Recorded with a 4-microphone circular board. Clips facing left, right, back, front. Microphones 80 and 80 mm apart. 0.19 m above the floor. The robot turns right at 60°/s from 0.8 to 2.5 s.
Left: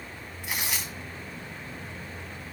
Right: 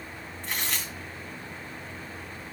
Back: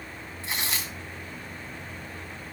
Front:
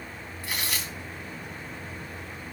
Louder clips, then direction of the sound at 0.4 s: Even, even; 160° left.